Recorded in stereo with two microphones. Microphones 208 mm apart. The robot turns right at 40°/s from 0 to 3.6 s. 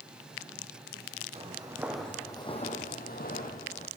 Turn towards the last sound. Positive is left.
turn(degrees=35)  # may be behind; listen again after turning